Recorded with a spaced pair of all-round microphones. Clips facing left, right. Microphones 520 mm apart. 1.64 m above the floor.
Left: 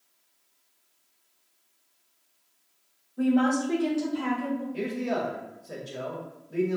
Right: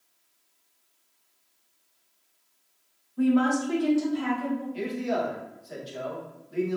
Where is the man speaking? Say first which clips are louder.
Even; 65° left (ahead or behind), 1.4 m.